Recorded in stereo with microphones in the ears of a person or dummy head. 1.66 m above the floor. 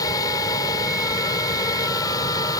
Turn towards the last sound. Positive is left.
turn(degrees=15)  # may be behind; listen again after turning